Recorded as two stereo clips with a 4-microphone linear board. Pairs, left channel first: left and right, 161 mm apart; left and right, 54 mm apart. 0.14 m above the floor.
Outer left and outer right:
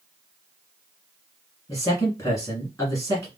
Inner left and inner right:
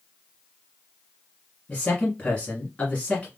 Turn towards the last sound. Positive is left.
turn(degrees=20)  # may be behind; listen again after turning